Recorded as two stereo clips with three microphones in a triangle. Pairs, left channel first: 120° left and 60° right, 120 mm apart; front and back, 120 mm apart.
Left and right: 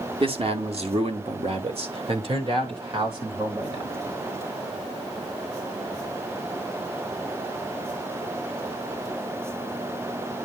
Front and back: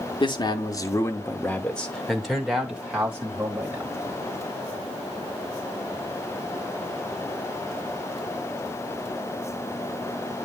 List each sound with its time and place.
0.2 s a man speaking: 35° right, 1.7 m; by 4.0 s 110° right, 3.5 m